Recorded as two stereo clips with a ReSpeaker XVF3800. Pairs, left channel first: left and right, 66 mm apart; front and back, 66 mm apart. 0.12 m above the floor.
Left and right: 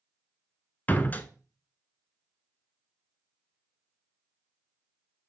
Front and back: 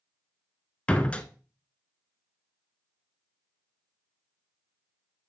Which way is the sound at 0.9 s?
55° left.